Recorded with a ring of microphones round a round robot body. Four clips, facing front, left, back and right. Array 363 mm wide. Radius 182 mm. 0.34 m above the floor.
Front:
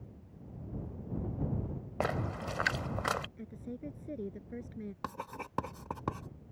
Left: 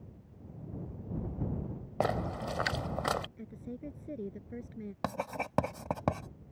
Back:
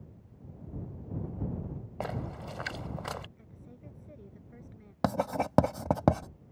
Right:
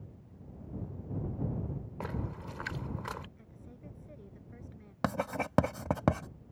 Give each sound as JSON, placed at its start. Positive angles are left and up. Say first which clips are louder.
{"t": 2.0, "sound": "a splash", "louder": "left 10 dB, front 3 dB", "azimuth_deg": 75}
{"t": 3.4, "sound": "a woman speaking", "louder": "left 10 dB, front 10 dB", "azimuth_deg": 45}
{"t": 5.0, "sound": "writing", "louder": "right 3 dB, back 16 dB", "azimuth_deg": -165}